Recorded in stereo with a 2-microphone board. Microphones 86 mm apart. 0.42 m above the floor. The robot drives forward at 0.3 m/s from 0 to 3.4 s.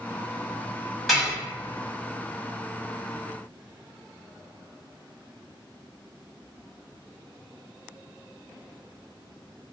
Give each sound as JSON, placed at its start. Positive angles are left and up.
{"t": 1.1, "sound": "dishes clattering", "side_deg": 0, "distance_m": 1.6}